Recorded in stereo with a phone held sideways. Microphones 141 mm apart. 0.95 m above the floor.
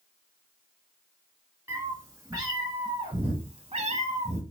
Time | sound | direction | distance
1.7 | a cat meowing | 20° right (ahead or behind) | 2 m